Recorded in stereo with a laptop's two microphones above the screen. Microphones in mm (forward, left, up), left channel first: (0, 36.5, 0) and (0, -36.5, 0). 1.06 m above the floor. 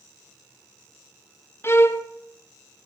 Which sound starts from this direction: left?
A violin, at 1.6 s.